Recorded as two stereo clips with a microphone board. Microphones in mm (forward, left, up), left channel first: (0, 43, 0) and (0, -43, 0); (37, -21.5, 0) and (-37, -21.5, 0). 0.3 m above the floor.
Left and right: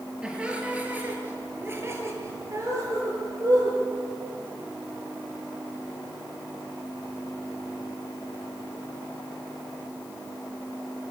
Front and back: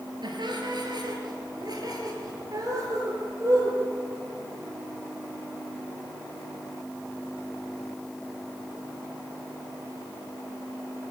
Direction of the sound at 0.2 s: 170° right.